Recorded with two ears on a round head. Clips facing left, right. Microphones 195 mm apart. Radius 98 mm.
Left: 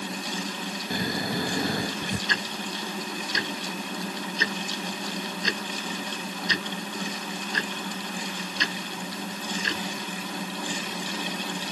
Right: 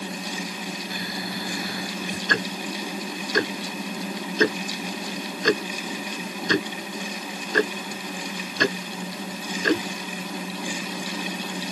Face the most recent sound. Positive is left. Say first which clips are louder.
# right 5 dB
turn(degrees=-45)  # may be behind; listen again after turning